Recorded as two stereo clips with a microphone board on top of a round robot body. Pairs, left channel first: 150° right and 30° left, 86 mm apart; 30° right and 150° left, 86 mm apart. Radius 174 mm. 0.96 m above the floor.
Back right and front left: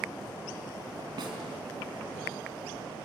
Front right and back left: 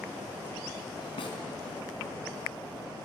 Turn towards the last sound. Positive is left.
turn(degrees=-10)